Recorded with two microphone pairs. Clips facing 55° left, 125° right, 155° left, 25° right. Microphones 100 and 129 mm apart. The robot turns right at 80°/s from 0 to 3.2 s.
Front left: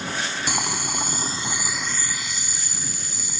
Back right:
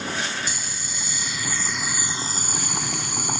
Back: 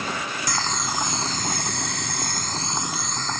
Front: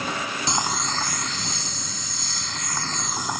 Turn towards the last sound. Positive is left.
turn(degrees=-105)